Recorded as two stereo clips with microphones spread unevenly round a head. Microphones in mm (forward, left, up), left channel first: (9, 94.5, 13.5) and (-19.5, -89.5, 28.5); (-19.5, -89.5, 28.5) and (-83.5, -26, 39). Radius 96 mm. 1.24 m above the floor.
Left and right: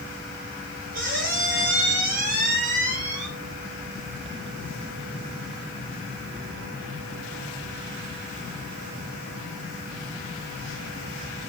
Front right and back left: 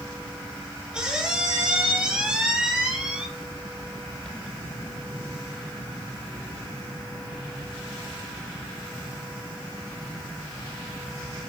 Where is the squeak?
145° right, 7.5 m.